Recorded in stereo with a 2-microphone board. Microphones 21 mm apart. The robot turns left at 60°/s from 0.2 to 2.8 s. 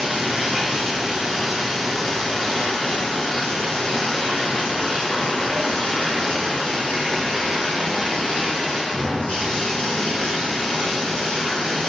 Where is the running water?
85° right, 2.5 m; by 11.9 s 120° left, 2.5 m.